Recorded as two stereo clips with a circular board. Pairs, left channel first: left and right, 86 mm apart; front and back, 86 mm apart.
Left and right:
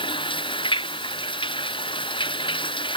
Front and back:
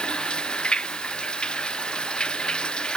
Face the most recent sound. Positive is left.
turn(degrees=80)